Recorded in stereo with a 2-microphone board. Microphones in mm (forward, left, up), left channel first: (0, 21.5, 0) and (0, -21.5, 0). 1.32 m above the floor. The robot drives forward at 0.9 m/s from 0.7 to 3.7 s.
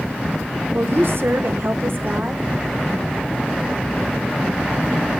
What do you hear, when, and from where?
0.7 s a woman speaking: 60° right (ahead or behind), 1.4 m; by 2.5 s 50° right (ahead or behind), 1.6 m